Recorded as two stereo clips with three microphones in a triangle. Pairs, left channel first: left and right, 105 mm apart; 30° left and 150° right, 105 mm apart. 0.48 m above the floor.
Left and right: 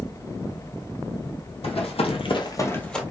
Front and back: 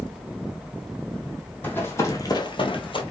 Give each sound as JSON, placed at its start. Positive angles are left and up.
{"t": 1.6, "sound": "running footsteps", "azimuth_deg": 100, "distance_m": 1.2}